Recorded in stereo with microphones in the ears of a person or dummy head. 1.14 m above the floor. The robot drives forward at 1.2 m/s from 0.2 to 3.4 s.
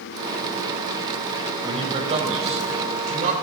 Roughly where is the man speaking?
Right.